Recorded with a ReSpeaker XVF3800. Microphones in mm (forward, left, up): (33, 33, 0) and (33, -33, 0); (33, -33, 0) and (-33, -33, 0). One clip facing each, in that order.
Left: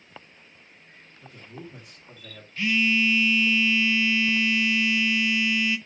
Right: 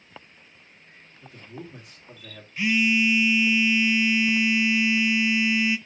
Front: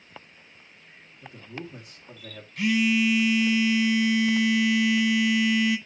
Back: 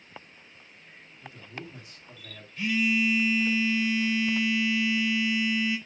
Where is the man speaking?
Straight ahead, 1.8 m.